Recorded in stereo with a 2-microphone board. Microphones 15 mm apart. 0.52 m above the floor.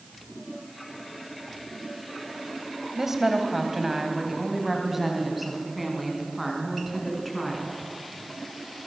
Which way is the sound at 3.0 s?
20° right (ahead or behind).